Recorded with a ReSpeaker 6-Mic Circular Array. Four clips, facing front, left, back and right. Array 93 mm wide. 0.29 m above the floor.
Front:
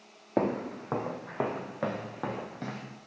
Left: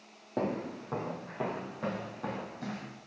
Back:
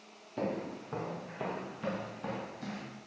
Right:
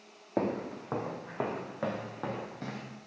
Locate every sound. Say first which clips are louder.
0.4 s footsteps: right 1 dB, front 7 dB; 15° right, 1.5 m; by 2.9 s 25° right, 3 m